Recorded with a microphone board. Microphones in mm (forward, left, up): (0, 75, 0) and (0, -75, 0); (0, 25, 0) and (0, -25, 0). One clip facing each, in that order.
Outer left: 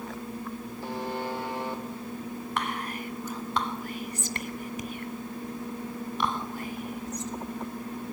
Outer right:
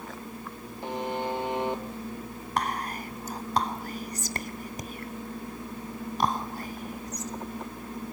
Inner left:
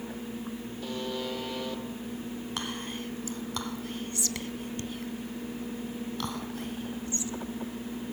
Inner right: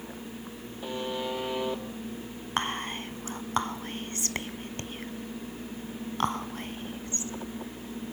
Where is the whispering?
40° right (ahead or behind), 1.4 m.